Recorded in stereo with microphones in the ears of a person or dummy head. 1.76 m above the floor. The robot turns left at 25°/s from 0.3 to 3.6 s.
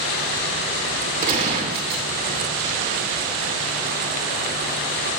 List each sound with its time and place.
1.2 s a gunshot: 45° right (ahead or behind), 2 m; by 2.0 s 55° right (ahead or behind), 2 m